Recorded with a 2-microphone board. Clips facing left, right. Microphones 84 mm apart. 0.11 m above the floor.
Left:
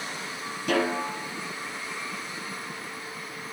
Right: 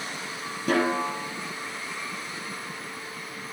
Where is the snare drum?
40° right (ahead or behind), 1.4 m.